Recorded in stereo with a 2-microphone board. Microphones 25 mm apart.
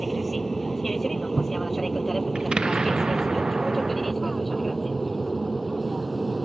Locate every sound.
0.0 s an aircraft: 10° left (ahead or behind); by 6.5 s centre (ahead or behind)
2.4 s an explosion: 45° right (ahead or behind)